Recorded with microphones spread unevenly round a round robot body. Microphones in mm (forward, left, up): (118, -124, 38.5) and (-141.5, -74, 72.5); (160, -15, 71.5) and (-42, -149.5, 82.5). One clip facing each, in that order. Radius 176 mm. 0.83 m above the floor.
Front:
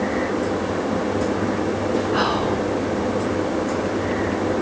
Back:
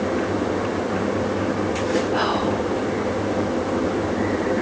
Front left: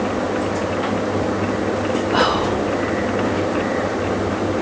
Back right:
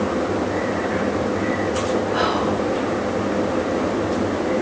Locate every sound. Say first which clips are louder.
2.1 s whispering: front 1 dB, front left 2 dB; 55° left, 2 m